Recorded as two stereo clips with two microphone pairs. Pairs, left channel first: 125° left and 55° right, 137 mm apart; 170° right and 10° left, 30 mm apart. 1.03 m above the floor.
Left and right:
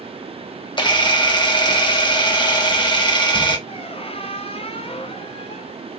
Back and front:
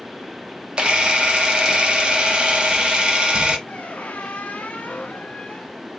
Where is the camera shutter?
65° left, 0.9 m.